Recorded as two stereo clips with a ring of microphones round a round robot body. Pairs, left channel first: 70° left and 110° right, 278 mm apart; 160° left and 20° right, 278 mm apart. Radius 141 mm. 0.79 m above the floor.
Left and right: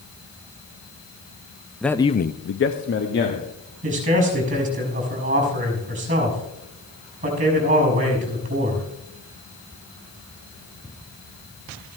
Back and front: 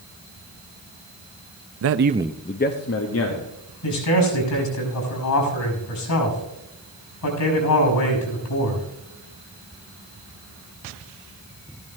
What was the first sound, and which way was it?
A man speaking, 20° right.